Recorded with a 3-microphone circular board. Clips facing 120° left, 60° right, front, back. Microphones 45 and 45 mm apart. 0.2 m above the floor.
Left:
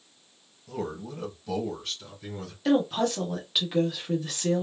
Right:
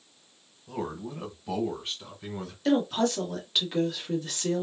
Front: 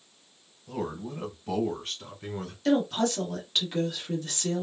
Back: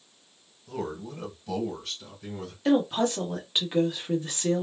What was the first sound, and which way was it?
A man speaking, 65° right.